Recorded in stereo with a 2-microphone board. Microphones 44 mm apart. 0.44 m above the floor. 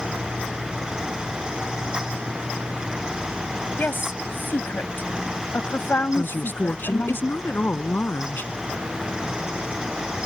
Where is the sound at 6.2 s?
50° left (ahead or behind).